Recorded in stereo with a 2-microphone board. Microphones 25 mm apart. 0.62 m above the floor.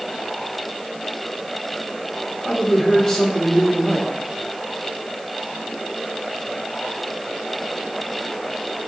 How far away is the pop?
No pop in this recording.